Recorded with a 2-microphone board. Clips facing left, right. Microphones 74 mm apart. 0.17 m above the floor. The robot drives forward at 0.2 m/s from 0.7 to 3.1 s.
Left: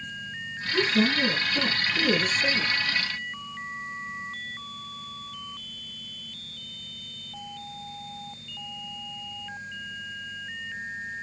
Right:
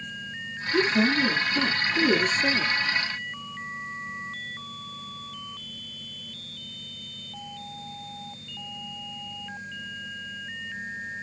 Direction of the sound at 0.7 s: 25° right (ahead or behind).